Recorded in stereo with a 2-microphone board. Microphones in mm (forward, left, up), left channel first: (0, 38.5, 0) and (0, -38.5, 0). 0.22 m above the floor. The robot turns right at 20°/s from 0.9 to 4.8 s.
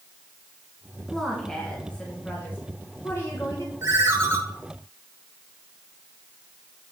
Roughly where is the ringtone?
Right.